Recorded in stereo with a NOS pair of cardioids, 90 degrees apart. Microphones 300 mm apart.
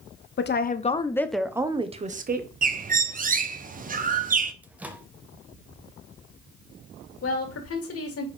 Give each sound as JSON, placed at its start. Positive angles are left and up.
{"t": 0.4, "sound": "a woman speaking", "azimuth_deg": 40, "distance_m": 1.2}
{"t": 2.6, "sound": "a bird", "azimuth_deg": -30, "distance_m": 1.0}
{"t": 4.6, "sound": "a microwave", "azimuth_deg": -5, "distance_m": 1.2}
{"t": 7.2, "sound": "a woman speaking", "azimuth_deg": 55, "distance_m": 3.0}